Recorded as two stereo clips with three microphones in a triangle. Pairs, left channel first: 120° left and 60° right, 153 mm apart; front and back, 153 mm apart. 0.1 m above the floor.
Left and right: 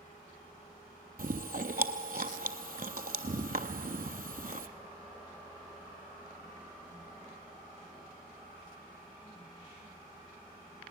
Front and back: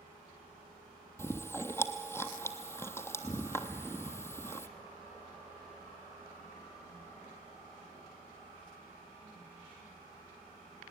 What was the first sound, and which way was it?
Chewing, 70° right.